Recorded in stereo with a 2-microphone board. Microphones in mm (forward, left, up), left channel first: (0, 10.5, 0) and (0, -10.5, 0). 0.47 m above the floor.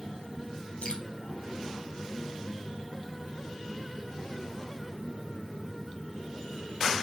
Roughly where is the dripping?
Left.